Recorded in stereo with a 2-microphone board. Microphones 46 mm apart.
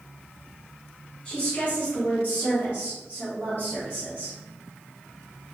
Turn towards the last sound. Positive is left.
turn(degrees=40)  # may be behind; listen again after turning